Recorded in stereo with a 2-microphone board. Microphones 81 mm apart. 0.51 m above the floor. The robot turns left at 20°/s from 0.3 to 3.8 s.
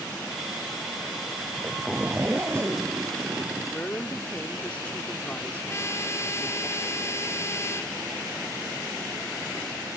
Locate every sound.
1.5 s a zipper: 10° right; by 3.7 s 55° right
3.6 s a woman speaking: 20° left (ahead or behind)
5.7 s a trumpet: 35° left (ahead or behind)